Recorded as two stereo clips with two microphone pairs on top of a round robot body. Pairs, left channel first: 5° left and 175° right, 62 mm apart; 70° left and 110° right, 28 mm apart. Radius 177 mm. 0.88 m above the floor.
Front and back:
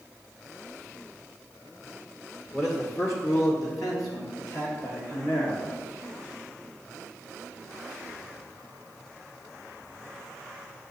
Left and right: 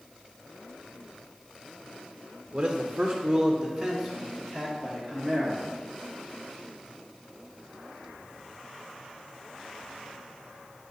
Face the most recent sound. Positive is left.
turn(degrees=-5)